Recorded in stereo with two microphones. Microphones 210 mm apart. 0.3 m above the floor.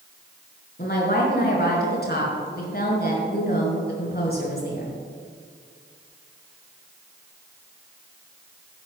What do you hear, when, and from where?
0.8 s a woman speaking: 50° left (ahead or behind), 4.5 m